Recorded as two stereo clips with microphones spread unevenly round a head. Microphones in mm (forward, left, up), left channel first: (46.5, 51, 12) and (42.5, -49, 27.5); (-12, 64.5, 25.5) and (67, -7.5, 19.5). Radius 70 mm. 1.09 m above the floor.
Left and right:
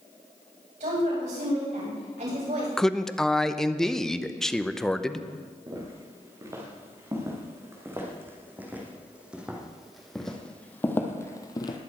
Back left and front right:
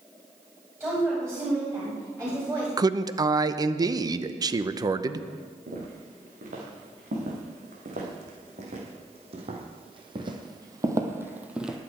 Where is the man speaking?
5° left, 0.8 m.